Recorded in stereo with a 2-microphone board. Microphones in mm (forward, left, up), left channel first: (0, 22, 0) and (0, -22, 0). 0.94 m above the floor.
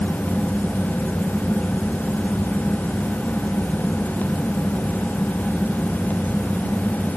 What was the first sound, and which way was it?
Only background noise.